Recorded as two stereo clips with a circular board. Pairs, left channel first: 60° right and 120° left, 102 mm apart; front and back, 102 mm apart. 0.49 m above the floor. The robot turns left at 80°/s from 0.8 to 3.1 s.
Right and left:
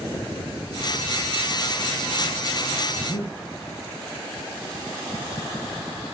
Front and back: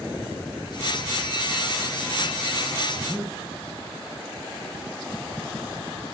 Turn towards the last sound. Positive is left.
turn(degrees=-80)